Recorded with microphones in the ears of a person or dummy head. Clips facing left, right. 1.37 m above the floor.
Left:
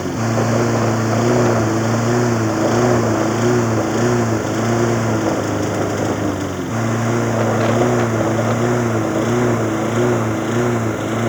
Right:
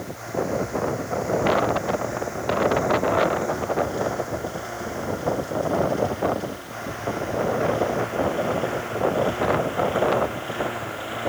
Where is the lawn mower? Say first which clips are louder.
Left 9 dB; 80° left; by 11.3 s 60° left (ahead or behind).